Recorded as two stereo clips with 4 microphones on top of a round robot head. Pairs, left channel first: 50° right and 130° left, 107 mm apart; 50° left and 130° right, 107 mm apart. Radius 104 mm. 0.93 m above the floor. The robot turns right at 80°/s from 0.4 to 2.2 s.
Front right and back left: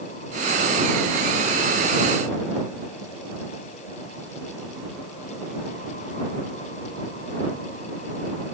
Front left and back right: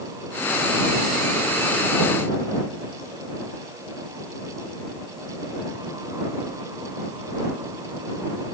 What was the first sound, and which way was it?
Only background noise.